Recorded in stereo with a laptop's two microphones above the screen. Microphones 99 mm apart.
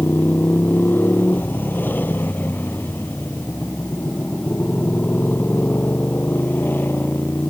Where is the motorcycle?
20° left (ahead or behind).